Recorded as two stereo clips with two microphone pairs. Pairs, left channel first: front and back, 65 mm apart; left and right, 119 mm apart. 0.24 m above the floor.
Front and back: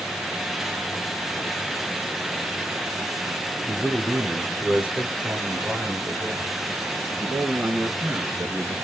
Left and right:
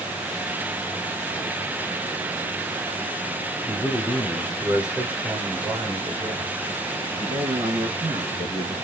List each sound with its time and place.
3.7 s a man speaking: 75° left, 1.2 m; by 8.8 s 140° right, 3 m